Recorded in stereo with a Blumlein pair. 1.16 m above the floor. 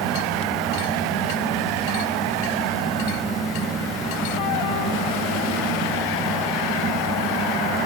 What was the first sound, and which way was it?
A fan, 20° right.